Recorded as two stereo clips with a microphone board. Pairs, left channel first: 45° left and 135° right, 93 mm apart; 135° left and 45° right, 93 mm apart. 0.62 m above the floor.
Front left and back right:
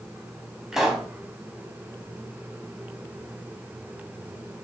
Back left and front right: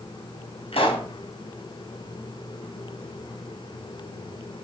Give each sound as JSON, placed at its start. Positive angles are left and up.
{"t": 0.7, "sound": "a pop", "azimuth_deg": 140, "distance_m": 3.0}